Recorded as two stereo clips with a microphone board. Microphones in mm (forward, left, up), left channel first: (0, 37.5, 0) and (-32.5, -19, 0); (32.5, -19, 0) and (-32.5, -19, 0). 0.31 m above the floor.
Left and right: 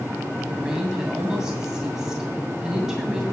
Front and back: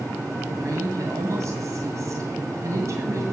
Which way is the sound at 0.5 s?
160° left.